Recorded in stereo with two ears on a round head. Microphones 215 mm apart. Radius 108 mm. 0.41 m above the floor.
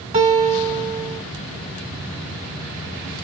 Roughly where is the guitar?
Right.